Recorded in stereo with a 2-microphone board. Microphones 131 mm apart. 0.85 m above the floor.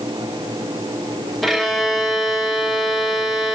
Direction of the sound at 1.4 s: Centre (ahead or behind).